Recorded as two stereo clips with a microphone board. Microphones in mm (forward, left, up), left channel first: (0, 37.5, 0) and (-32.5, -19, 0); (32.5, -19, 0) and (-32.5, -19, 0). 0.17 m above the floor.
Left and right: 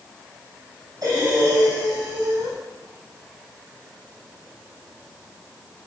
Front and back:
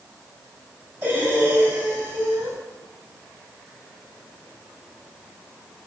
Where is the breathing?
125° right, 3.5 m.